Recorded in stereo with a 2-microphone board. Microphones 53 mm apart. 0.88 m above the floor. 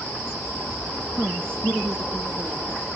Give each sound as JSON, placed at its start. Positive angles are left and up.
{"t": 1.1, "sound": "a woman speaking", "side_deg": -30, "distance_m": 0.9}